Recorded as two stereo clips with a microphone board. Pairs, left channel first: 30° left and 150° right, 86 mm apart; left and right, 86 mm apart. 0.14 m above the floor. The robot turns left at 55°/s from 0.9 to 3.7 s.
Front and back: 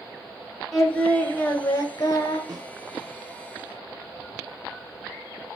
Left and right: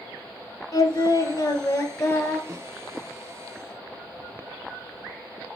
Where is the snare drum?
140° right, 1.8 m; by 2.8 s 155° right, 1.8 m.